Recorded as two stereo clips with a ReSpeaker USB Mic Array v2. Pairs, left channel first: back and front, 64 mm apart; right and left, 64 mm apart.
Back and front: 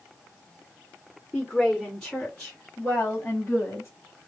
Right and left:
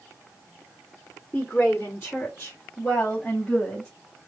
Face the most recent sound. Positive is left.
turn(degrees=-160)